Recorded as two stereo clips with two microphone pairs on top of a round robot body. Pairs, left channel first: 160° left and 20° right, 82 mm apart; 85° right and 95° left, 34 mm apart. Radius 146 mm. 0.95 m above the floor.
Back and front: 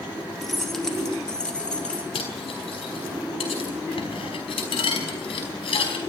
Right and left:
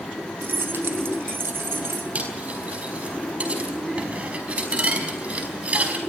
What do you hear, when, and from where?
0.4 s keys jangling: 70° left, 1.9 m; by 2.0 s 85° left, 2.5 m
2.1 s cutlery clinking: 150° left, 4.5 m